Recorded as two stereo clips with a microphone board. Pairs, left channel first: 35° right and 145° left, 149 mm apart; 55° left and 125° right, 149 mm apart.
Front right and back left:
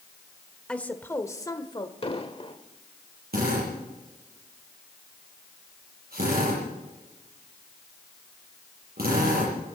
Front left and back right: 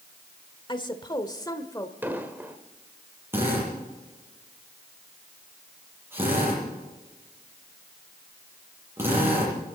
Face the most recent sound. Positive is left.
turn(degrees=160)